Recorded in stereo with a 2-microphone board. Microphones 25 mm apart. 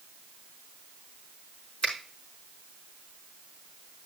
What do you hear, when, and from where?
1.8 s a finger snap: 55° left (ahead or behind), 5 m